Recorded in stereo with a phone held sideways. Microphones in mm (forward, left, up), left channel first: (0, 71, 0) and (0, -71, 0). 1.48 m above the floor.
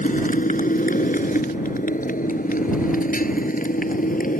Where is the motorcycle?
70° left (ahead or behind); by 4.4 s 75° left (ahead or behind).